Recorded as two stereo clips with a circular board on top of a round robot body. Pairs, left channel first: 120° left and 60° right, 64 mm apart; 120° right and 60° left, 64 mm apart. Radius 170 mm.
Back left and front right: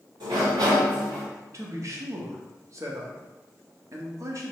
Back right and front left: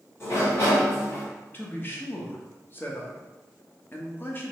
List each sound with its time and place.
0.2 s a sliding door: 65° right, 0.7 m
1.5 s a man speaking: 70° right, 1.1 m